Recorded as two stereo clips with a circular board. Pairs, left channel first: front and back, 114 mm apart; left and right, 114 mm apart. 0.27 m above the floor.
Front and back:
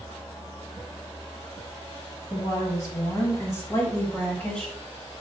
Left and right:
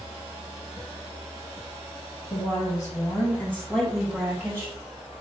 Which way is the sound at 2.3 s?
50° left.